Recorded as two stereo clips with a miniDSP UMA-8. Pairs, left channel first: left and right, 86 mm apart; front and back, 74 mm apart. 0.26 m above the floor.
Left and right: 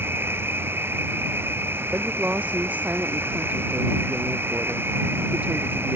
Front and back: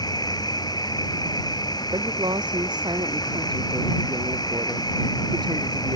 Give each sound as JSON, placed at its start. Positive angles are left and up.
{"t": 0.0, "sound": "an insect", "azimuth_deg": -25}
{"t": 1.9, "sound": "a woman speaking", "azimuth_deg": -165}